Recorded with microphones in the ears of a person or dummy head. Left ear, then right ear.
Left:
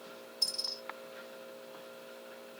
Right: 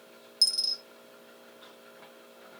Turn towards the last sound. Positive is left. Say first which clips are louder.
# right 8 dB
turn(degrees=-70)  # may be behind; listen again after turning